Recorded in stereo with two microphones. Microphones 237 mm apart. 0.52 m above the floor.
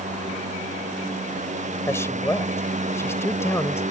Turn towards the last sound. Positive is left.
turn(degrees=10)  # may be behind; listen again after turning